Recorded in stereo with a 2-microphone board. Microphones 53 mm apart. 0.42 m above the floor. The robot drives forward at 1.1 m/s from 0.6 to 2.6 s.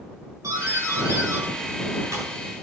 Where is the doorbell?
80° right, 8 m; by 2.3 s 70° right (ahead or behind), 8 m.